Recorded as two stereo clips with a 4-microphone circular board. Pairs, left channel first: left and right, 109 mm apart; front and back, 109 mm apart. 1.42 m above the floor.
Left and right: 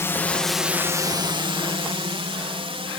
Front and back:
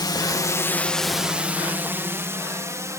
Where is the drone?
30° left; by 3.0 s 120° right.